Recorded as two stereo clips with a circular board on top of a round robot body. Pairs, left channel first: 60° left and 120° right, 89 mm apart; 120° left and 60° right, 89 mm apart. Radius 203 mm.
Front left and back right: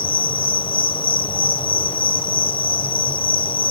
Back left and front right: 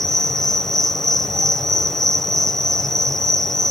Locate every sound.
0.0 s an insect: 35° left, 0.8 m